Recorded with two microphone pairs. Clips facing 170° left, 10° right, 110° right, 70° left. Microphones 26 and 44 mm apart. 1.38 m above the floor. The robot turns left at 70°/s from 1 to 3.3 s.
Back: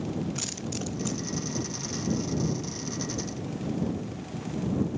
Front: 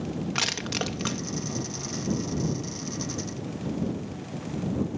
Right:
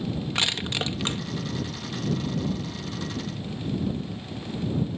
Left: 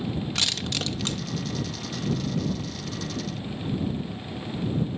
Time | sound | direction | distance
0.3 | crushing | 45° right | ?